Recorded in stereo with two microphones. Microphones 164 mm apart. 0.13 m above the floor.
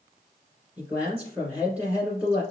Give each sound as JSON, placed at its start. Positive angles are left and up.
{"t": 0.8, "sound": "a man speaking", "side_deg": -5, "distance_m": 1.7}